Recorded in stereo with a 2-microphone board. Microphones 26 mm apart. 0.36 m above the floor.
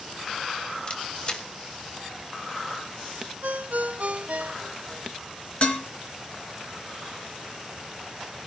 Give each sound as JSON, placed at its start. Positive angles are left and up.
{"t": 0.9, "sound": "a camera shutter", "side_deg": 35, "distance_m": 1.8}
{"t": 3.4, "sound": "a ringtone", "side_deg": -60, "distance_m": 0.7}
{"t": 5.6, "sound": "dishes clattering", "side_deg": 45, "distance_m": 2.5}